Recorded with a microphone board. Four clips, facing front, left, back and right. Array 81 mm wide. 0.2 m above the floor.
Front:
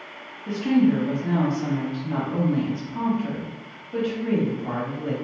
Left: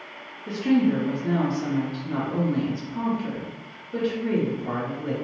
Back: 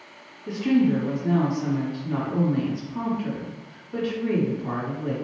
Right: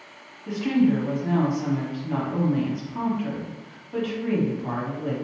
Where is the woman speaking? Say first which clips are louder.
Even, front 1 dB; 65° right, 1.4 m.